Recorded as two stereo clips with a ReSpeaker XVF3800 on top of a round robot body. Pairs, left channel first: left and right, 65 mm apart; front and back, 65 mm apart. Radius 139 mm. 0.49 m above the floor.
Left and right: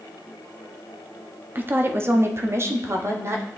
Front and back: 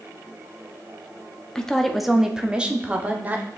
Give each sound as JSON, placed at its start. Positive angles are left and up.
{"t": 1.6, "sound": "a woman speaking", "azimuth_deg": -70, "distance_m": 1.3}